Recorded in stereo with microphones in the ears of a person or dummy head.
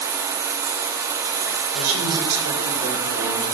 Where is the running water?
15° right (ahead or behind), 0.7 m.